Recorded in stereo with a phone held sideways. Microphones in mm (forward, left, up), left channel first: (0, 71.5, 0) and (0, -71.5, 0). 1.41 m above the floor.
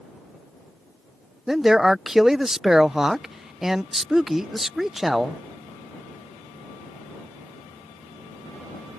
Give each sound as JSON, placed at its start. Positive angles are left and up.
{"t": 1.5, "sound": "a man speaking", "side_deg": -5}